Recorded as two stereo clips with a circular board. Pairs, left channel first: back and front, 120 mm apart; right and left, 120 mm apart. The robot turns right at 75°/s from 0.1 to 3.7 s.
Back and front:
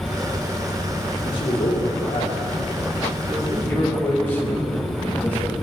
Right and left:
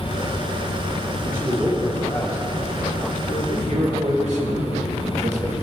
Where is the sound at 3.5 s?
95° left, 2.5 m; by 5.5 s 105° left, 2.5 m.